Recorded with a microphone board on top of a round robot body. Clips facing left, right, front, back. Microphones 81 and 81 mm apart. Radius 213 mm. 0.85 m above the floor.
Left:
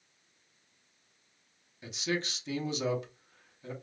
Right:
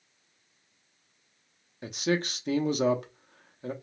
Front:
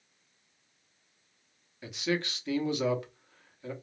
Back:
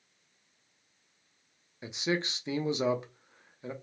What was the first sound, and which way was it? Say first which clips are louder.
A man speaking: right 6 dB, even; 115° right.